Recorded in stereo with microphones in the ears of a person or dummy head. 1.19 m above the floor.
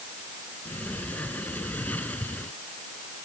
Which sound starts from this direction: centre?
A sliding door, at 0.7 s.